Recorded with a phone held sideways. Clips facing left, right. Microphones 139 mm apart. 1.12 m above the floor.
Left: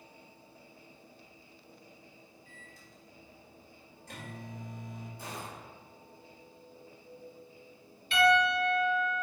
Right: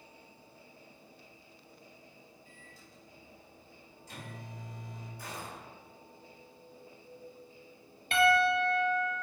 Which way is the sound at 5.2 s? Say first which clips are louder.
Right 1 dB; 25° left (ahead or behind).